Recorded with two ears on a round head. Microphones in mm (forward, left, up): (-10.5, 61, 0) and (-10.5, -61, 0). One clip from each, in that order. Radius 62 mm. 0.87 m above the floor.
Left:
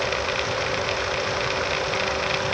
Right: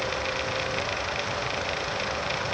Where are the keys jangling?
I don't hear keys jangling.